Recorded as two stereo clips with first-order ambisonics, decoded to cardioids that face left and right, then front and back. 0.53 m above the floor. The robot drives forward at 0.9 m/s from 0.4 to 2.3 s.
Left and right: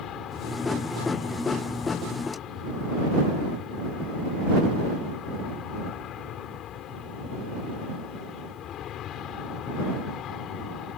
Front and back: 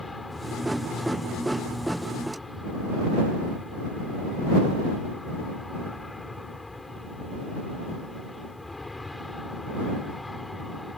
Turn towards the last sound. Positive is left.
turn(degrees=80)